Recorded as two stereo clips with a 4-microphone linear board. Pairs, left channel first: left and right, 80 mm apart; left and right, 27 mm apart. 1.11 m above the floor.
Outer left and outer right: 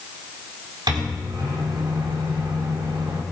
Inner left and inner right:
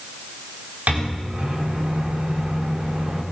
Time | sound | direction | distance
0.9 | a microwave | 70° right (ahead or behind) | 3 m